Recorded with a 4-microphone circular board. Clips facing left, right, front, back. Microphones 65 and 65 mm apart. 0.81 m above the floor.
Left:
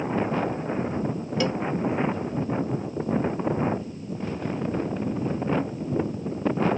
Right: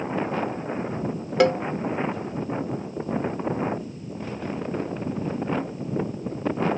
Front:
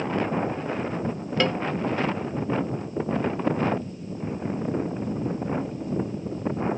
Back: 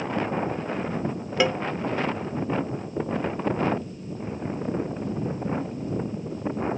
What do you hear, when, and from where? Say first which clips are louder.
1.4 s a cowbell: right 8 dB, back 1 dB; 100° right